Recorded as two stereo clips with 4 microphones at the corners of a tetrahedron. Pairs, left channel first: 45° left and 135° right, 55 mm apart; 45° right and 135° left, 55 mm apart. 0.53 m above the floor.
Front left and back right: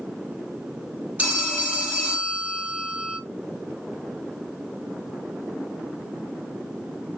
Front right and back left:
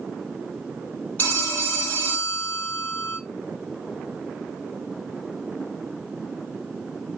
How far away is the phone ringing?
About 1.0 m.